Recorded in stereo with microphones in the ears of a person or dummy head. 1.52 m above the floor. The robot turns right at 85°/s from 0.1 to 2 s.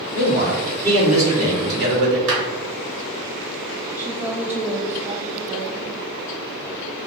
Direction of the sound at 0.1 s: 100° left.